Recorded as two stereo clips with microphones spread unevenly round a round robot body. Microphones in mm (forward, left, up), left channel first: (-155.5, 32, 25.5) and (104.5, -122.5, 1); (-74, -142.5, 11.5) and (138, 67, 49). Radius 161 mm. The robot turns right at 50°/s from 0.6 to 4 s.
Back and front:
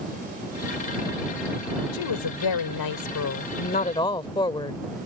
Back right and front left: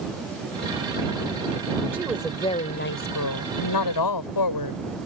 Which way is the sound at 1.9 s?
120° left.